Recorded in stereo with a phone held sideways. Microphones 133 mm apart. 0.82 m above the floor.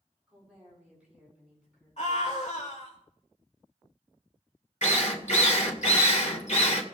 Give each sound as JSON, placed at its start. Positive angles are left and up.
{"t": 0.3, "sound": "a woman speaking", "side_deg": -10, "distance_m": 8.0}
{"t": 2.0, "sound": "a scream", "side_deg": 65, "distance_m": 3.0}
{"t": 4.8, "sound": "a drill", "side_deg": 65, "distance_m": 1.8}